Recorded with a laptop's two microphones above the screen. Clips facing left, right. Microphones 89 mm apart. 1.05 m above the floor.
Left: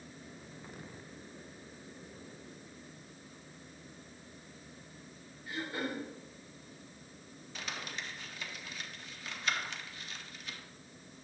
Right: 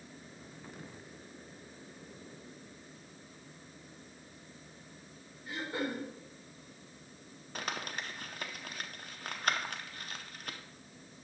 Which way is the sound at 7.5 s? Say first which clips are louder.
Right 4 dB; 50° right (ahead or behind).